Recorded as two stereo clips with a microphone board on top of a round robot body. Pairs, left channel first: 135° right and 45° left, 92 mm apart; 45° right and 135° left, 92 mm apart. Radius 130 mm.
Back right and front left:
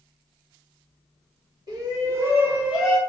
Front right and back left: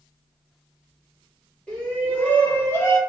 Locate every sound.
1.7 s a shout: 30° left, 1.6 m; by 3.0 s 55° right, 1.2 m